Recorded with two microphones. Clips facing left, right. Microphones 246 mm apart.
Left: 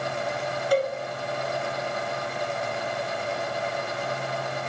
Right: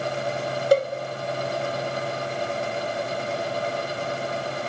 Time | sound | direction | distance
0.7 | a cowbell | 40° right (ahead or behind) | 0.7 m